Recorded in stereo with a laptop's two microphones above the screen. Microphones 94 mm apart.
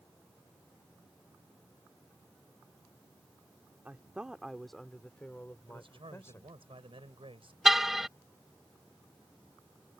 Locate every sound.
3.9 s a woman speaking: 15° right (ahead or behind); by 6.5 s 30° left (ahead or behind)
5.7 s a man speaking: 75° right (ahead or behind)
7.7 s a car horn: 5° right (ahead or behind)